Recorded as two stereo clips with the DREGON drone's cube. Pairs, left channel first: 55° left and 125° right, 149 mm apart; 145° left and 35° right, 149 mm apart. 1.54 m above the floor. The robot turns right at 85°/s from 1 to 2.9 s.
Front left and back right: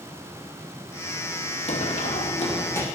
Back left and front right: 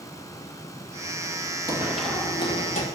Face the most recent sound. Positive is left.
turn(degrees=135)